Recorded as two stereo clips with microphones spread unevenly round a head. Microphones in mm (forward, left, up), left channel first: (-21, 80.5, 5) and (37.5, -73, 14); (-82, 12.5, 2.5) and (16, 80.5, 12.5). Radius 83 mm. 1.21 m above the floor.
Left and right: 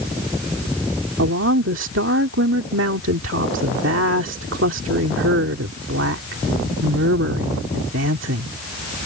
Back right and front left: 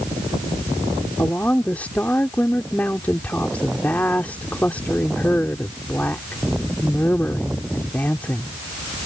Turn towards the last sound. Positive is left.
turn(degrees=-65)